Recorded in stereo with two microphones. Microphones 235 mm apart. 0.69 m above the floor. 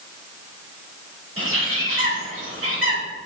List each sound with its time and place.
1.4 s a bird: 65° right (ahead or behind), 4 m